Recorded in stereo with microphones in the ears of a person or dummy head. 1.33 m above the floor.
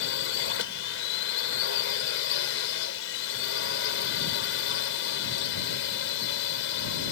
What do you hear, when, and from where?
0.0 s a drone: 75° left (ahead or behind)